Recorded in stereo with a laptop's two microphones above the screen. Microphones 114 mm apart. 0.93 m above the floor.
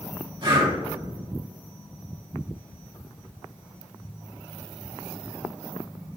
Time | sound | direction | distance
0.4 | breathing | 45° right (ahead or behind) | 1.1 m